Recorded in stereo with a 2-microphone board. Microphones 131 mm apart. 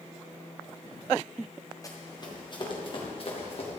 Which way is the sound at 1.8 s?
25° left (ahead or behind).